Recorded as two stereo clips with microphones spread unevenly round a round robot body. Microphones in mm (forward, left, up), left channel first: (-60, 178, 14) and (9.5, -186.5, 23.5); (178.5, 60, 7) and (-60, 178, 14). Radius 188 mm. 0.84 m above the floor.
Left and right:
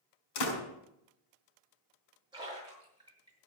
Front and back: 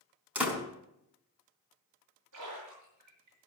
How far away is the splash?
About 7.5 m.